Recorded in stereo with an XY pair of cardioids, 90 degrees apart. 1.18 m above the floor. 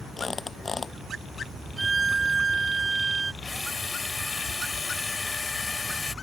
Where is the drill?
30° left.